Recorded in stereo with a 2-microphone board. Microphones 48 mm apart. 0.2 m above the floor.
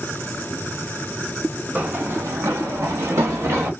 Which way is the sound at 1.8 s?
30° right (ahead or behind).